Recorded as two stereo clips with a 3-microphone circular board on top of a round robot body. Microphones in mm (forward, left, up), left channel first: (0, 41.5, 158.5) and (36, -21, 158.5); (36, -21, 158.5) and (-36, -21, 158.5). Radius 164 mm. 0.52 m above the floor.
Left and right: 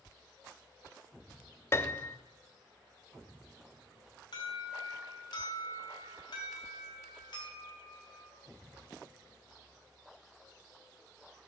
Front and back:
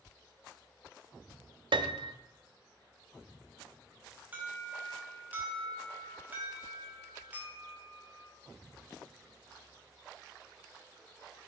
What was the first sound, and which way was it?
A piano, 175° left.